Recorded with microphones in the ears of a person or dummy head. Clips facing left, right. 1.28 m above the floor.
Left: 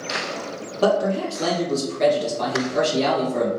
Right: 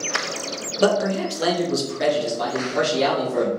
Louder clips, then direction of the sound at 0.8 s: Even; 30° right (ahead or behind).